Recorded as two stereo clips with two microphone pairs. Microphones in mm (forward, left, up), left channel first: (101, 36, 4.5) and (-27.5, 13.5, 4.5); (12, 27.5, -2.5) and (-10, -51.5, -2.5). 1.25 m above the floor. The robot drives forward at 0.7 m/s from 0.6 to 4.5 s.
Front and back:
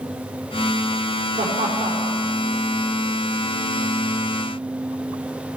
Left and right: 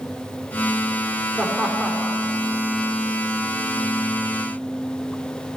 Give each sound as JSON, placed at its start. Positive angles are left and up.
{"t": 1.4, "sound": "laughter", "azimuth_deg": 175, "distance_m": 3.5}